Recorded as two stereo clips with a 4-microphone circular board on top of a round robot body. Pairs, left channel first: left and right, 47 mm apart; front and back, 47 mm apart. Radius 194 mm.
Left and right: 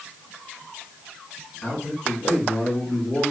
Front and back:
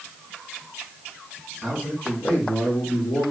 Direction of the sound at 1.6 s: 75° left.